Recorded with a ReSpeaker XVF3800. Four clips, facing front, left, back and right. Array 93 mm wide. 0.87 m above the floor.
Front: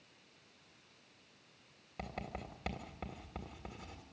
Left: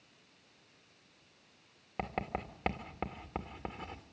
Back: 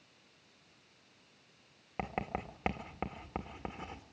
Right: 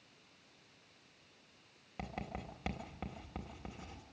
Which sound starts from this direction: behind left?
Writing, at 2.0 s.